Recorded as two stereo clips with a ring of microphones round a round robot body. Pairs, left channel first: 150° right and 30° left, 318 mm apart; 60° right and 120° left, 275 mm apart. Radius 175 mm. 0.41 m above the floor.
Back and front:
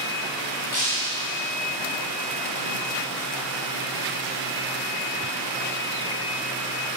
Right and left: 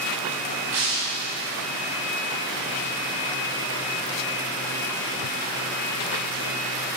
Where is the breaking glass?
170° left, 8.5 m.